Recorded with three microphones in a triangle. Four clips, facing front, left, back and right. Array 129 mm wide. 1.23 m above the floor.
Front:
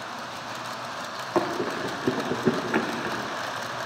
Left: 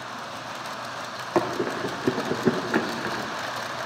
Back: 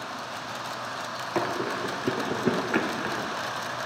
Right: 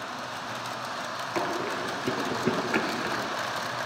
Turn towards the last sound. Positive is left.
turn(degrees=140)